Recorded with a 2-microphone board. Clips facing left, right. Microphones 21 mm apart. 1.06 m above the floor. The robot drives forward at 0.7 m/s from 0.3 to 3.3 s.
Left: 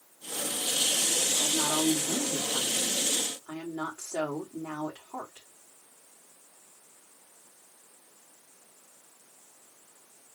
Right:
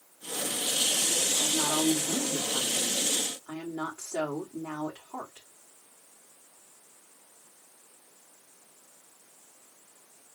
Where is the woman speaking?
25° left (ahead or behind), 1.8 m; by 5.5 s 15° left (ahead or behind), 3 m.